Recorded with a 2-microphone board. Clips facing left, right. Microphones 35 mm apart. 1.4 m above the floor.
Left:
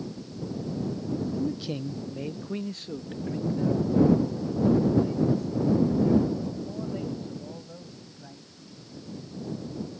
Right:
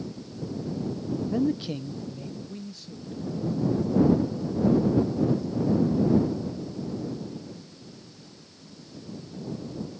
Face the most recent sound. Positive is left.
turn(degrees=65)  # may be behind; listen again after turning